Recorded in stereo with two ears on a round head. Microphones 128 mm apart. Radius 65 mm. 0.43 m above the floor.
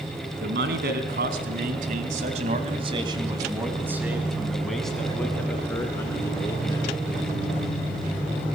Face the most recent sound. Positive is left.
turn(degrees=25)  # may be behind; listen again after turning